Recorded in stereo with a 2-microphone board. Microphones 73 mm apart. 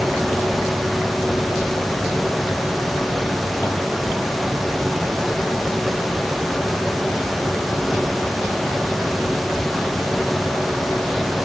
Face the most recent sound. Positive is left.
No sound to turn to.